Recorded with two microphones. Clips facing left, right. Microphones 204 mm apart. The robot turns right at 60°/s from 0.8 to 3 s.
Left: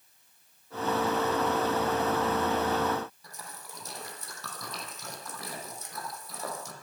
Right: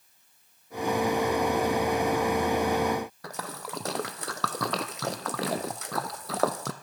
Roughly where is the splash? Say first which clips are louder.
Right 10 dB; right.